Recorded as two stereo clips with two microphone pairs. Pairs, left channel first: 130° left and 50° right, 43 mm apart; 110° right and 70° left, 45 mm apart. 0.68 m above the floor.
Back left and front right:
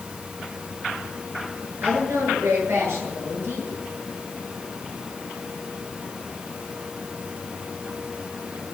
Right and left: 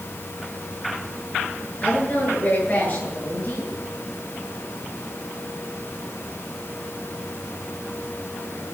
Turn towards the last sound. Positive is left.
turn(degrees=-60)